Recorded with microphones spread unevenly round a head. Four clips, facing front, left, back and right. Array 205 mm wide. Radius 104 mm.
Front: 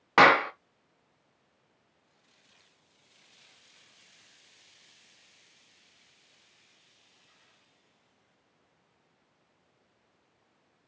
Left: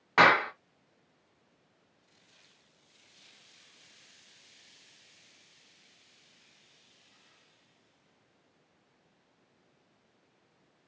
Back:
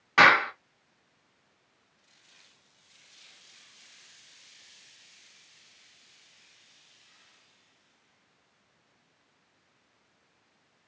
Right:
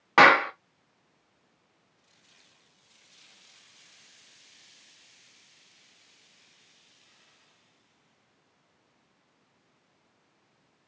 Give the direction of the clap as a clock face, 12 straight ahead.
2 o'clock.